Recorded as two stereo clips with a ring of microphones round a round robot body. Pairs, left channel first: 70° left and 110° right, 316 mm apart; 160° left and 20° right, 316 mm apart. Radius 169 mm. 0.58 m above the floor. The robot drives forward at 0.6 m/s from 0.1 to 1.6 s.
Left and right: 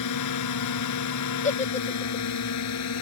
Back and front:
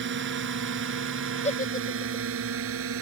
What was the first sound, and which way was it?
A drone, 35° left.